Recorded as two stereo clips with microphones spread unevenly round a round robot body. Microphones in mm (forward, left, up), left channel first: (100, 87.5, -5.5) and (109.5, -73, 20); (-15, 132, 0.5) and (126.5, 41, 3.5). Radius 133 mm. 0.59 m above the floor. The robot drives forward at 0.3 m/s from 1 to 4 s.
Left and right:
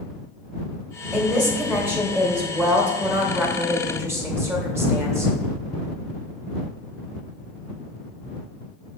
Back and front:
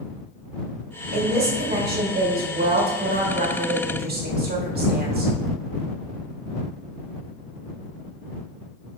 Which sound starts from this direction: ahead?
A woman speaking, at 1.1 s.